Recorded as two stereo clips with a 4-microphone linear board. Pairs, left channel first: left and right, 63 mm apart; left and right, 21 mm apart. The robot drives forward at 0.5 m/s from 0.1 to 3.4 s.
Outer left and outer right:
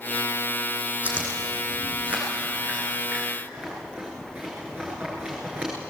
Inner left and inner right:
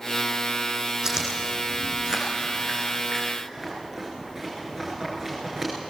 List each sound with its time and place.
1.0 s chewing: 25° right (ahead or behind), 7 m; by 5.7 s 20° right (ahead or behind), 8.5 m